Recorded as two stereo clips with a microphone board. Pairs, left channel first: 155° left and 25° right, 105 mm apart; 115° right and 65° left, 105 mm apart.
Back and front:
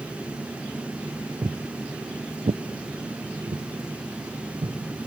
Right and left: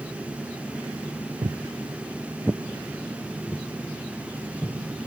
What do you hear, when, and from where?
1.4 s footsteps: 30° left, 0.5 m; by 4.8 s 40° right, 1.9 m